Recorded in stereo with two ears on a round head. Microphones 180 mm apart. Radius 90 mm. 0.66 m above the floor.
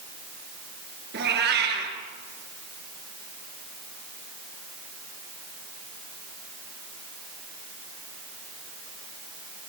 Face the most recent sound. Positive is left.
turn(degrees=-55)  # may be behind; listen again after turning